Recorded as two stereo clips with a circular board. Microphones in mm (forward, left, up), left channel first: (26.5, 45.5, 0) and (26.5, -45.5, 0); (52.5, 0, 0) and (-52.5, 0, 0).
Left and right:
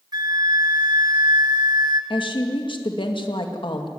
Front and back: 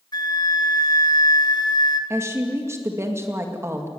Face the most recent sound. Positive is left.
turn(degrees=115)